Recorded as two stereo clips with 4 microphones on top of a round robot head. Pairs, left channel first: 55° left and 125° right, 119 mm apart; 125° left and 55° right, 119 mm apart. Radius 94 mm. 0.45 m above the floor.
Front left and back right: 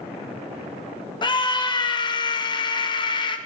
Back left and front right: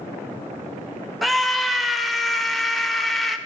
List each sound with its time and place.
1.2 s a scream: 35° left, 1.4 m